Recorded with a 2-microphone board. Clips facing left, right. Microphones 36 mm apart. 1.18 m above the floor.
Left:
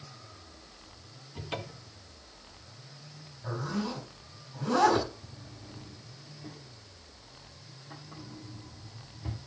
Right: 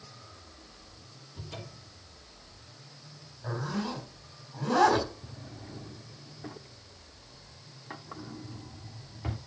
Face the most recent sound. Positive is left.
turn(degrees=-45)  # may be behind; listen again after turning